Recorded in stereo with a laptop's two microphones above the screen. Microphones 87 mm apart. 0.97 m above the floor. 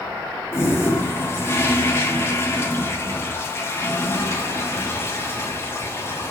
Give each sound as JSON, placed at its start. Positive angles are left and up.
{"t": 0.5, "sound": "a toilet flushing", "side_deg": 30, "distance_m": 1.7}